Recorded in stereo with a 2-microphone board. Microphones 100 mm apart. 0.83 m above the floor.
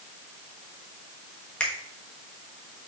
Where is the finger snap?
15° left (ahead or behind), 1.1 m.